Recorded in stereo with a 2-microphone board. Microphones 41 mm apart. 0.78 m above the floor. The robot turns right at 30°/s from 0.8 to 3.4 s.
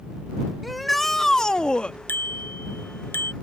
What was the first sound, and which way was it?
A shout, straight ahead.